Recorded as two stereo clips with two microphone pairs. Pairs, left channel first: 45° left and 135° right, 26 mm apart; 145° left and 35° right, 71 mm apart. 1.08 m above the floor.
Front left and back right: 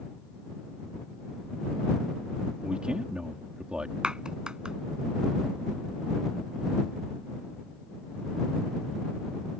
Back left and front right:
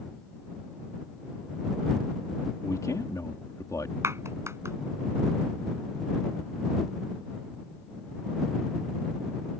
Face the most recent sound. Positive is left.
turn(degrees=-80)